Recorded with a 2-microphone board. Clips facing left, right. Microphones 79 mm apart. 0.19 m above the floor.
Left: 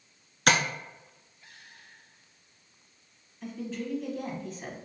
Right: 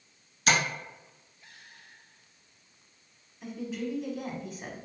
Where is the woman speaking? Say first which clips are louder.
Right 1 dB; 5° right (ahead or behind), 1.1 m.